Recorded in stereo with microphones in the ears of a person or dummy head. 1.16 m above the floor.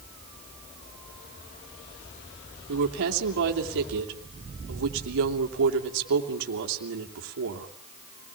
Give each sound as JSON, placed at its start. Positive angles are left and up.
{"t": 2.7, "sound": "a woman speaking", "side_deg": -65, "distance_m": 2.5}